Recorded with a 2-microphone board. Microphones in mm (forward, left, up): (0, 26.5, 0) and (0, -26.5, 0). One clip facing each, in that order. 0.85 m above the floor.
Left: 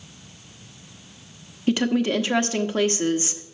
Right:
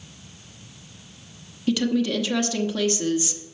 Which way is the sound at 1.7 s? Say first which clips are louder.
Left 1 dB; 35° left (ahead or behind).